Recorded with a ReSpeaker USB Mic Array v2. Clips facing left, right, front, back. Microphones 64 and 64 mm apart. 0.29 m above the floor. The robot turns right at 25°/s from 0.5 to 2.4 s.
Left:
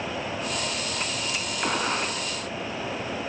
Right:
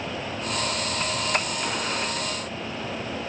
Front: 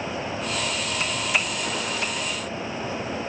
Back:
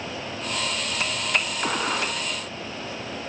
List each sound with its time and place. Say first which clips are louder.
1.6 s a gunshot: left 2 dB, back 2 dB; 145° left, 3.5 m; by 2.2 s 160° left, 3.5 m